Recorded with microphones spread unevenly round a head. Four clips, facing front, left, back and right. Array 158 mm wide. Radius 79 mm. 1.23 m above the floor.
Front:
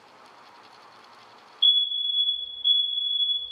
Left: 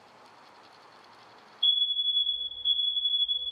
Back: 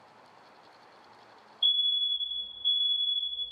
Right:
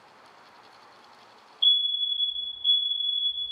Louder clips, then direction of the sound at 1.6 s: Right 3 dB, front 5 dB; 50° right.